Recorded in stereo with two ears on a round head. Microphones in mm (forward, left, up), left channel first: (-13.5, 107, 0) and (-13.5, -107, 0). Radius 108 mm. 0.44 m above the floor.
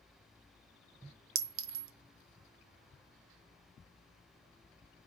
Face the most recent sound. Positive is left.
turn(degrees=-60)  # may be behind; listen again after turning